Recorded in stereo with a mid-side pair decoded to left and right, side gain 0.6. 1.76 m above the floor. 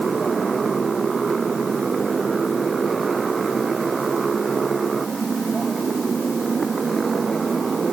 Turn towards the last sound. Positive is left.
turn(degrees=-25)